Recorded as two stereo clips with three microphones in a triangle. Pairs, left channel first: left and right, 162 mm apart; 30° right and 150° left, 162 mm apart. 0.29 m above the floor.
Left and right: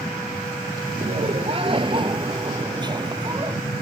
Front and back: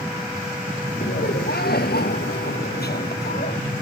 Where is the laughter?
40° right; by 3.6 s 25° right.